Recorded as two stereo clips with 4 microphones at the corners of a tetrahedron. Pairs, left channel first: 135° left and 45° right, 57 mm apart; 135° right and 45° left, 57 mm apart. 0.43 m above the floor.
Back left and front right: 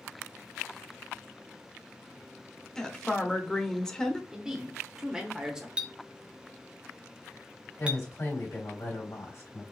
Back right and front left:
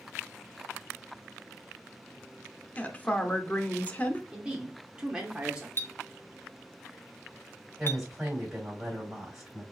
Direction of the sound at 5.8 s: 105° right.